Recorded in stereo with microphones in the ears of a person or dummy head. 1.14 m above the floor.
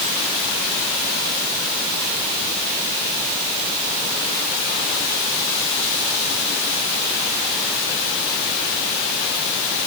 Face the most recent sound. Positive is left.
No sound to turn to.